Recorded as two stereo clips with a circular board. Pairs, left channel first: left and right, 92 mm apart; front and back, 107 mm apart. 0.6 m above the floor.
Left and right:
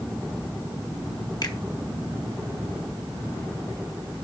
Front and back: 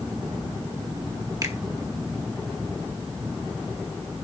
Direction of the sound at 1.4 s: 125° left.